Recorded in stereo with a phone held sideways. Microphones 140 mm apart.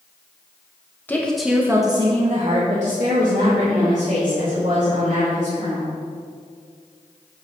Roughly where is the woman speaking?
Centre.